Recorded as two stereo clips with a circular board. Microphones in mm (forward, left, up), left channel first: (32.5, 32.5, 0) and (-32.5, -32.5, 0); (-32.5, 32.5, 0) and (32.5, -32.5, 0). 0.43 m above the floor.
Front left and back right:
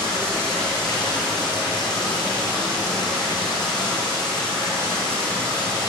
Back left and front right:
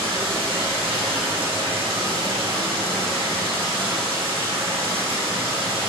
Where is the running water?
35° right, 7.5 m.